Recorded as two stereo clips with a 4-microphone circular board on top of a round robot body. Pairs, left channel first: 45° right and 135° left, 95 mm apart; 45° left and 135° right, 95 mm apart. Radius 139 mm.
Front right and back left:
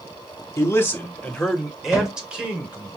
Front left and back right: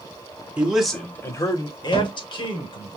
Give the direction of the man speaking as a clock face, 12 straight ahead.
2 o'clock.